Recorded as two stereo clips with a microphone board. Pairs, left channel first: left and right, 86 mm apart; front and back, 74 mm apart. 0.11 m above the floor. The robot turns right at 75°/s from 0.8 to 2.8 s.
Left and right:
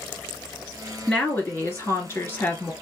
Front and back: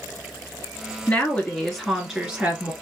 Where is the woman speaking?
25° left, 1.7 m; by 2.7 s 150° left, 1.7 m.